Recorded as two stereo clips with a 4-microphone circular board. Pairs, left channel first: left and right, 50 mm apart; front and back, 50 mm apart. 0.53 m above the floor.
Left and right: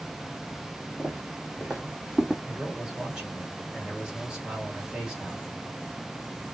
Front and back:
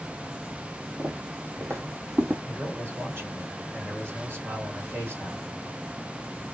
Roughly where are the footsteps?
Behind.